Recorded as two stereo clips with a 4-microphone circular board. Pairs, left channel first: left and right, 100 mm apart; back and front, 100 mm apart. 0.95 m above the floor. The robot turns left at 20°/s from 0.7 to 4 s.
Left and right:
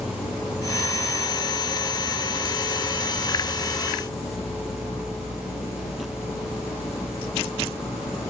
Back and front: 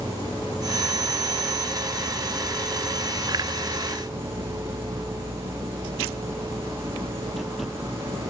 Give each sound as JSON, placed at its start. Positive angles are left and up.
{"t": 0.0, "sound": "an insect", "azimuth_deg": 135, "distance_m": 5.0}